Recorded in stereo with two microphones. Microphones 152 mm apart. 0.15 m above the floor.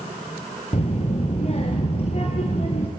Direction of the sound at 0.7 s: 45° left (ahead or behind).